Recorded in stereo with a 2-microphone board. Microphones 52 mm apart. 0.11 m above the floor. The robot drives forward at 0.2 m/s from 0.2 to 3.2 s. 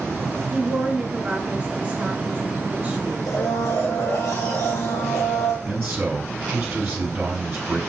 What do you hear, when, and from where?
0.5 s a woman speaking: 25° right (ahead or behind), 1.5 m
3.3 s a blender: 60° left (ahead or behind), 2.5 m
5.7 s a man speaking: 15° right (ahead or behind), 1.2 m